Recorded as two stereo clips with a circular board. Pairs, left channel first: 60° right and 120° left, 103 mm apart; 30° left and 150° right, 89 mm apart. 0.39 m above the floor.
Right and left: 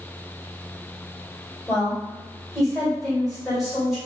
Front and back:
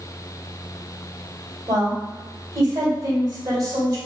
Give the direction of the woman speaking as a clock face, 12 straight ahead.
5 o'clock.